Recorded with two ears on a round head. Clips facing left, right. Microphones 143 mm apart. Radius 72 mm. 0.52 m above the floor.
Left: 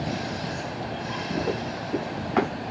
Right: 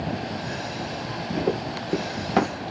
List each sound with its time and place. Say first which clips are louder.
1.5 s running footsteps: right 2 dB; 50° right (ahead or behind), 4.5 m; by 2.5 s 45° right (ahead or behind), 5 m